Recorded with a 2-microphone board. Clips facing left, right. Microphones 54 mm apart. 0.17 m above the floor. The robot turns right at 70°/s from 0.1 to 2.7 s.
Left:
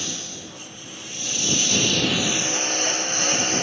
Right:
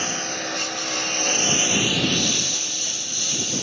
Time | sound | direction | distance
0.0 | a lawn mower | 135° right | ?